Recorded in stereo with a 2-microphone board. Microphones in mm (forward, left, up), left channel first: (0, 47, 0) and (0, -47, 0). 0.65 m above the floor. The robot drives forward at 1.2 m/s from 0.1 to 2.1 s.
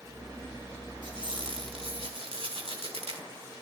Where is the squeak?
60° right (ahead or behind), 3.5 m; by 3.2 s 75° right (ahead or behind), 3 m.